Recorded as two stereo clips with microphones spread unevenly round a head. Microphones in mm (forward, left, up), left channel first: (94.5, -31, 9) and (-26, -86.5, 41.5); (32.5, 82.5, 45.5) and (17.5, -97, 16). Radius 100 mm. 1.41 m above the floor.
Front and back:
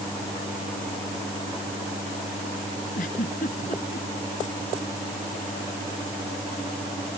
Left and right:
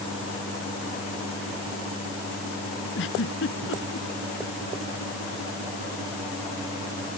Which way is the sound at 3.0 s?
70° left.